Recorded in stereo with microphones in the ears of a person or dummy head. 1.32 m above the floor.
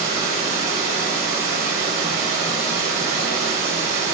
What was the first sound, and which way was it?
Running water, 50° right (ahead or behind).